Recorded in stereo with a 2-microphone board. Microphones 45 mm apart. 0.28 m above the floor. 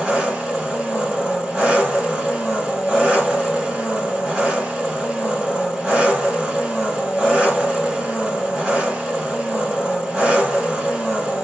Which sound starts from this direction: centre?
An engine running, at 0.0 s.